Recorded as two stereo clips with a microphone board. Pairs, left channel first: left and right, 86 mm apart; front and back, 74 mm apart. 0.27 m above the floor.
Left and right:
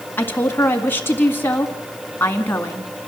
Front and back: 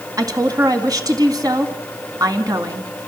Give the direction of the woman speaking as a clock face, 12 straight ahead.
7 o'clock.